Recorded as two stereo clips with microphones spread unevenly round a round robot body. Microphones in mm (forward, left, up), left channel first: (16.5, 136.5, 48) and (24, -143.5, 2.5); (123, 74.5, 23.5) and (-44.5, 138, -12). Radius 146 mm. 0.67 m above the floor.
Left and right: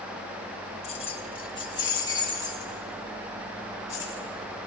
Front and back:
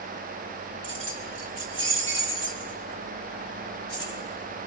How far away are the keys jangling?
About 1.4 m.